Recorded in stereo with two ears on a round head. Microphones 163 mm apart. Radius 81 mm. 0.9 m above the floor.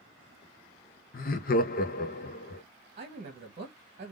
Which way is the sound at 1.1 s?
50° left (ahead or behind).